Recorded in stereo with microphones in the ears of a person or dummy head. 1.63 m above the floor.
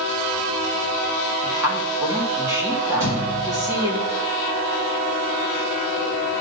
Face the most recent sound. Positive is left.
turn(degrees=-35)  # may be behind; listen again after turning